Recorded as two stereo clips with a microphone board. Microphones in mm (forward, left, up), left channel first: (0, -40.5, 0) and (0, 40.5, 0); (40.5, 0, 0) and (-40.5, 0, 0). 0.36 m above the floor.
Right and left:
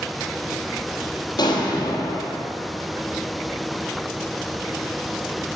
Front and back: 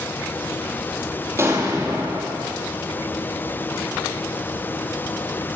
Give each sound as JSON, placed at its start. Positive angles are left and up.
{"t": 1.4, "sound": "an explosion", "azimuth_deg": -125, "distance_m": 3.5}